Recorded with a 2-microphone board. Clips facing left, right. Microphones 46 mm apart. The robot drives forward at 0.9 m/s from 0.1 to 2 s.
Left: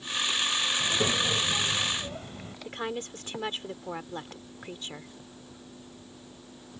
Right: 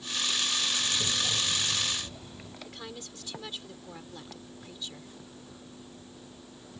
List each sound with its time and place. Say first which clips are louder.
0.8 s a child speaking: left 4 dB; 65° left (ahead or behind); by 2.5 s 50° left (ahead or behind)
2.6 s a woman speaking: left 12 dB; 45° left (ahead or behind)